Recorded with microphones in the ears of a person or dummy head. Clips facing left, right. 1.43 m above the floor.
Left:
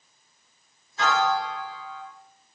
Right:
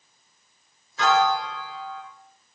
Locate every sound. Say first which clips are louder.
1.0 s a piano: right 3 dB; 75° right (ahead or behind), 2.5 m